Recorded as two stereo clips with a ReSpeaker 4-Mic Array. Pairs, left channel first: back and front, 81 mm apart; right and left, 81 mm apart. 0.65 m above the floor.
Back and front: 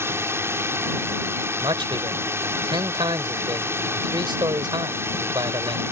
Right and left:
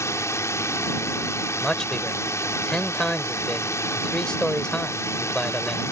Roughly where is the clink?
I don't hear a clink.